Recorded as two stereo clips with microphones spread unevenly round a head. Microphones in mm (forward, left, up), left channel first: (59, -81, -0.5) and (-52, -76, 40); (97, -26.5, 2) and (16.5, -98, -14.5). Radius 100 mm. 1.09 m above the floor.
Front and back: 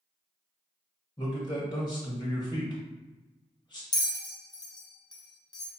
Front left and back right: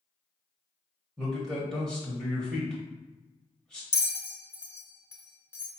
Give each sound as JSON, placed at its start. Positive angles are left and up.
{"t": 1.2, "sound": "a man speaking", "azimuth_deg": -55, "distance_m": 1.0}
{"t": 3.9, "sound": "a bell", "azimuth_deg": -30, "distance_m": 0.8}